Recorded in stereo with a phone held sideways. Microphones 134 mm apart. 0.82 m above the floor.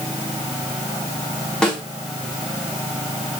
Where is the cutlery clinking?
I don't hear cutlery clinking.